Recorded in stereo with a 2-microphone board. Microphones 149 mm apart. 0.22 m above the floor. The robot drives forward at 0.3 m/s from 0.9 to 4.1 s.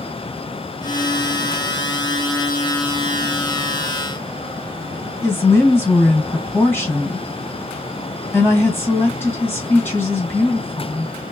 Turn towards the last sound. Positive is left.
turn(degrees=15)  # may be behind; listen again after turning